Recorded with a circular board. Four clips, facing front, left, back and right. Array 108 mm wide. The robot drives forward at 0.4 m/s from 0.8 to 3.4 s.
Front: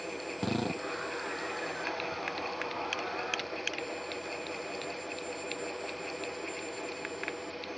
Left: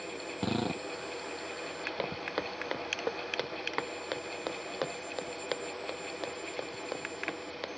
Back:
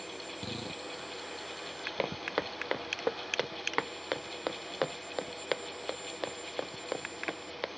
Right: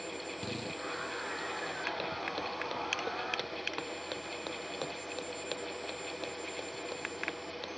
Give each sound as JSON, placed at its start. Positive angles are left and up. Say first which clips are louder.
{"t": 0.4, "sound": "a drill", "louder": "left 11 dB, front 11 dB", "azimuth_deg": 50}
{"t": 2.0, "sound": "footsteps", "louder": "left 1 dB, back 2 dB", "azimuth_deg": 160}